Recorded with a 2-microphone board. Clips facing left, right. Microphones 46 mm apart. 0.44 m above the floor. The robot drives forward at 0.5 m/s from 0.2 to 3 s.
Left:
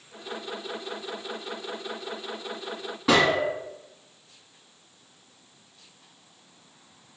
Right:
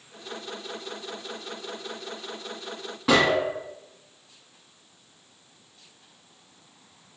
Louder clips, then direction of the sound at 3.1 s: Even; centre (ahead or behind).